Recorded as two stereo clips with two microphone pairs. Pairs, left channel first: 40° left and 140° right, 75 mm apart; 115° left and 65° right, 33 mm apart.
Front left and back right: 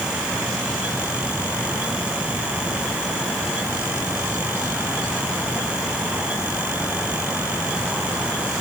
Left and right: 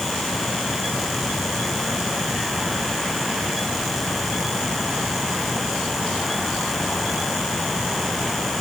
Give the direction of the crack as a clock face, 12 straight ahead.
No crack in this recording.